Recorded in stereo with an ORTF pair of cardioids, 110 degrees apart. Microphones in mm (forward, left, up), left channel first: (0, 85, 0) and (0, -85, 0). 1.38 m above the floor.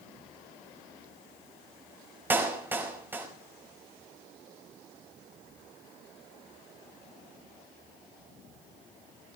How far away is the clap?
About 5.5 m.